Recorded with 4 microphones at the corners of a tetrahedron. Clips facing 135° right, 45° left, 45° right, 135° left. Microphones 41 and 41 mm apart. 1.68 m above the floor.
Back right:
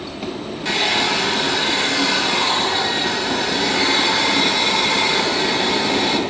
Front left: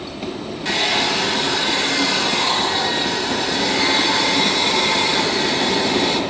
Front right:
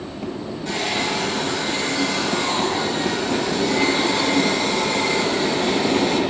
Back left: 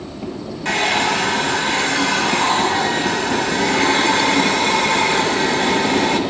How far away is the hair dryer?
About 1.6 m.